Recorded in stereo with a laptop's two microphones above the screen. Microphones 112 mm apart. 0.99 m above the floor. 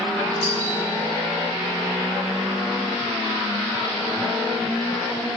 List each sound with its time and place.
0.4 s a doorbell: 30° right (ahead or behind), 3.5 m